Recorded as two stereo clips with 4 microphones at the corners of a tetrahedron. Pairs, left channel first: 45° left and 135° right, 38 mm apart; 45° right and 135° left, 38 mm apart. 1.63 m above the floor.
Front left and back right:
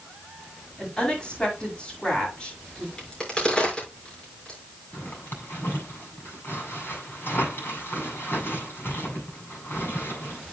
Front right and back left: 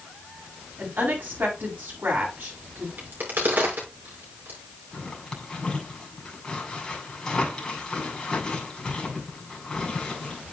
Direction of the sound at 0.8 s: 105° left.